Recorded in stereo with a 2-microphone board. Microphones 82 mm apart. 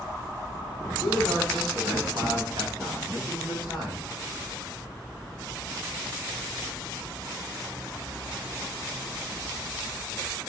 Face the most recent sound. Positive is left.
turn(degrees=-75)  # may be behind; listen again after turning